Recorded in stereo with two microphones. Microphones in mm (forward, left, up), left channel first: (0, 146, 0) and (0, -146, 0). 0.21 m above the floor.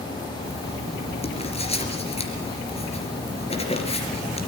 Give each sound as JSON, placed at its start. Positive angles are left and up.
{"t": 0.4, "sound": "writing", "side_deg": 20, "distance_m": 4.0}